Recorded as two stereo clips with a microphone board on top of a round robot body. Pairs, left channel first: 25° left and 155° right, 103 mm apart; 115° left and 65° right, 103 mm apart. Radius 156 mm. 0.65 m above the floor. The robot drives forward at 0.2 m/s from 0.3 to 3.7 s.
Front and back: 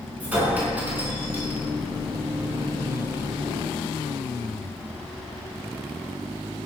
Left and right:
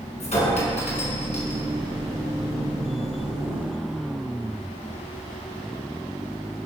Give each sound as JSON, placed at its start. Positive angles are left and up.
{"t": 0.2, "sound": "a clink", "azimuth_deg": 125, "distance_m": 6.0}